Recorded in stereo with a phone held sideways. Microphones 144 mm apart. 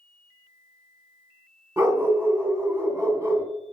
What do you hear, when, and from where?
1.8 s a dog barking: 20° right (ahead or behind), 1.8 m